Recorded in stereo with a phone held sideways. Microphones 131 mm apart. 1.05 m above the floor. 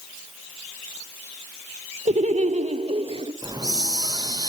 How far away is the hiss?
About 1.2 m.